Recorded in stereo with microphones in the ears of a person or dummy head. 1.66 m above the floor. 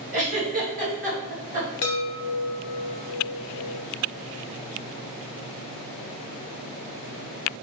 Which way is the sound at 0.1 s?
35° right (ahead or behind).